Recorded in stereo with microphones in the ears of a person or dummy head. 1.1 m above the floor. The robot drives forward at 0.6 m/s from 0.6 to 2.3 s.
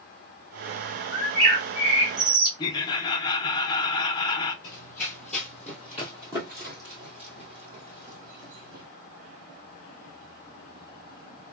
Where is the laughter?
25° left (ahead or behind), 0.7 m.